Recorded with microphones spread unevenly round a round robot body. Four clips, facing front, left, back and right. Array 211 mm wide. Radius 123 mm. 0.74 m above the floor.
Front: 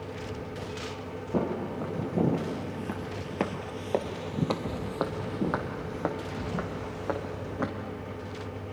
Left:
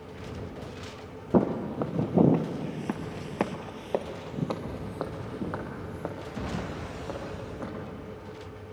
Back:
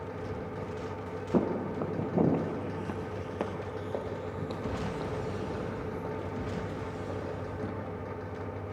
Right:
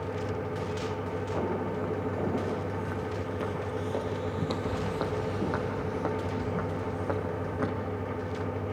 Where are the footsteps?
110° left, 1.7 m; by 7.7 s 20° right, 3.5 m.